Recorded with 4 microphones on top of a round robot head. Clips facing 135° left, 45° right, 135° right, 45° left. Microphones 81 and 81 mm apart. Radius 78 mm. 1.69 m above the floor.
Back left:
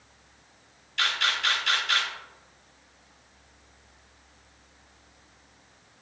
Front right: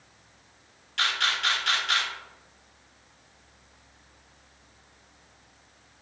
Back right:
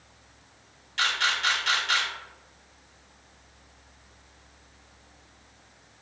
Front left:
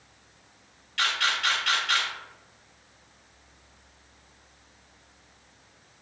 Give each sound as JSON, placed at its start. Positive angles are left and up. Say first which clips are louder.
{"t": 1.0, "sound": "a camera shutter", "louder": "even, even", "azimuth_deg": -75, "distance_m": 1.5}